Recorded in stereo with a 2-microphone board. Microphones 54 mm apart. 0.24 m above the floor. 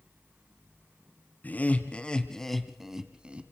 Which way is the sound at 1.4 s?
30° left (ahead or behind).